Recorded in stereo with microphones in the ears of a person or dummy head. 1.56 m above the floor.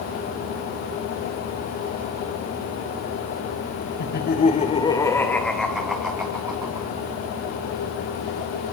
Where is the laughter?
55° left (ahead or behind), 2 m; by 6.9 s 10° right (ahead or behind), 4.5 m.